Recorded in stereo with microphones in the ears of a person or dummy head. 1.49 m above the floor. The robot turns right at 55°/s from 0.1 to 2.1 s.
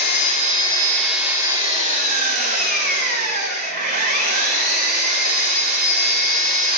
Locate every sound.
0.0 s an engine running: 120° left, 1.1 m; by 6.8 s 130° right, 1.1 m